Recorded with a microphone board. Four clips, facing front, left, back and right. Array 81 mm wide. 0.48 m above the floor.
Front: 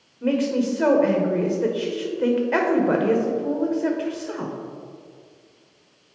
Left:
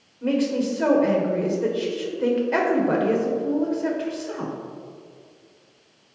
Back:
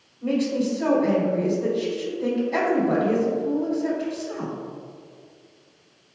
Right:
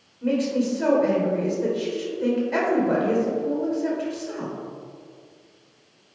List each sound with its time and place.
0.2 s a woman speaking: 15° left, 1.6 m